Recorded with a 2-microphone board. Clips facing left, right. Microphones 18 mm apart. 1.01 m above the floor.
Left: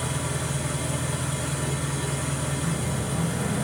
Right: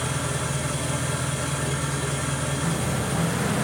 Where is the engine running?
70° right (ahead or behind), 4 m.